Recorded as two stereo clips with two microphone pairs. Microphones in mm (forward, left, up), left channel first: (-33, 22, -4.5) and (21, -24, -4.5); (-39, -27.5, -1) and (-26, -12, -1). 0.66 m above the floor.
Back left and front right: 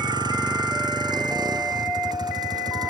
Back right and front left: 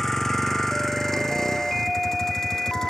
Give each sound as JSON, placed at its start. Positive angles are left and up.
{"t": 0.0, "sound": "a vehicle", "azimuth_deg": -55}